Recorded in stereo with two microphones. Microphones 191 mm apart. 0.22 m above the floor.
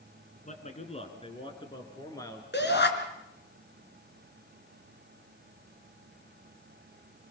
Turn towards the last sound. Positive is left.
turn(degrees=65)  # may be behind; listen again after turning